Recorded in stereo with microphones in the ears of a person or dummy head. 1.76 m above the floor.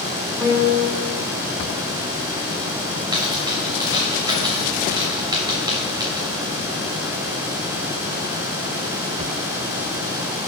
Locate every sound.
0.4 s a piano: 10° right (ahead or behind), 1.0 m
3.1 s a dropped coin: 20° right (ahead or behind), 2.5 m